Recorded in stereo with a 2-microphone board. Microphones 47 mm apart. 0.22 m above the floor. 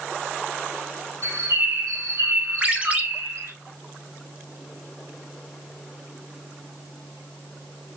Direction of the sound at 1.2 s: 80° right.